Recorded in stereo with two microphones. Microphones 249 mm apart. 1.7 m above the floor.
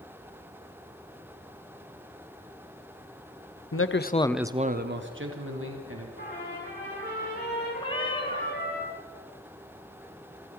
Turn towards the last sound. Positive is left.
turn(degrees=20)  # may be behind; listen again after turning